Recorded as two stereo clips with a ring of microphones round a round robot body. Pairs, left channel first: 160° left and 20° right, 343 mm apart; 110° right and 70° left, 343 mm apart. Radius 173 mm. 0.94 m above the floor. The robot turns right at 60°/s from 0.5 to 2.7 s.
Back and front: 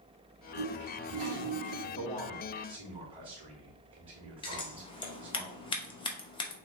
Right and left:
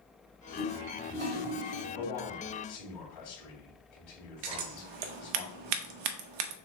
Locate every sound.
0.5 s a toilet flushing: 45° right, 2.5 m; by 1.8 s 35° left, 2.5 m
1.9 s a man speaking: 145° right, 2.5 m; by 5.4 s 100° right, 2.5 m
4.4 s scissors: 80° left, 0.7 m